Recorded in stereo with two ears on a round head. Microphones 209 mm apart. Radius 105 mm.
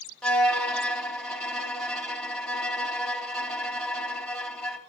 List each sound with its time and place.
0.2 s a violin: 5° left (ahead or behind), 0.8 m